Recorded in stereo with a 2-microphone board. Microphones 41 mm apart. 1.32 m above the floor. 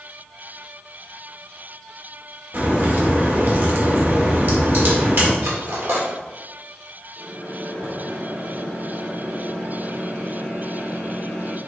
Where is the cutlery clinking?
70° right (ahead or behind), 2 m.